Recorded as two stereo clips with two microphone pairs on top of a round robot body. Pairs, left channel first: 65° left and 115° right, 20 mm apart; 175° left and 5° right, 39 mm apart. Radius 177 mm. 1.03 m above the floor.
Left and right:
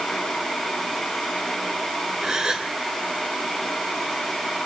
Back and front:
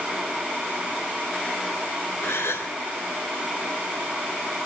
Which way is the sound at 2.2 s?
170° right.